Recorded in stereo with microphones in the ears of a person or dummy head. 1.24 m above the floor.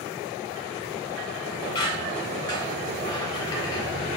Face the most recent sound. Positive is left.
turn(degrees=20)  # may be behind; listen again after turning